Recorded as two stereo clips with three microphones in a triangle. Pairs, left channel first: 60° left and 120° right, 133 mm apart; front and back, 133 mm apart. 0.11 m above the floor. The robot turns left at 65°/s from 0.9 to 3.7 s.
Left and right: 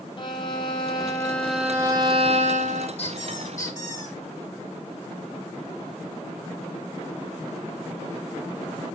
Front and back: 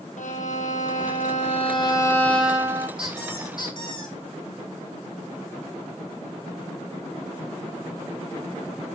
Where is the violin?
10° left, 1.7 m; by 2.9 s 120° right, 1.7 m.